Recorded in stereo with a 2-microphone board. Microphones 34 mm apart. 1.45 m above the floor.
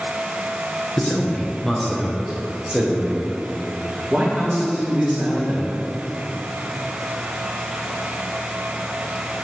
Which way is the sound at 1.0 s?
35° left (ahead or behind).